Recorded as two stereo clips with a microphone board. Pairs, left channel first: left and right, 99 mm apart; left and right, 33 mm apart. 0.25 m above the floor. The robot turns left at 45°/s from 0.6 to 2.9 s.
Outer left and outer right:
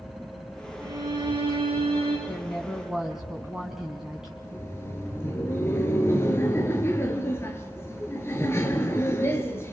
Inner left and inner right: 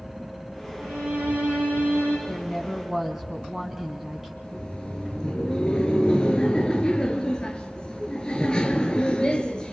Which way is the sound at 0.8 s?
35° right.